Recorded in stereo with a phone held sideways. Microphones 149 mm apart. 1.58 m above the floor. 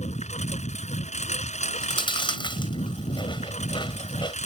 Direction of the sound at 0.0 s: 55° left (ahead or behind).